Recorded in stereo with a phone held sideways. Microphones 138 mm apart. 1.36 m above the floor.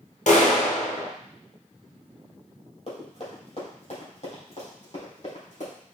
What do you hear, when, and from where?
0.3 s a clap: 65° left (ahead or behind), 0.8 m
2.9 s running footsteps: 50° left (ahead or behind), 2 m; by 5.7 s 70° left (ahead or behind), 3.5 m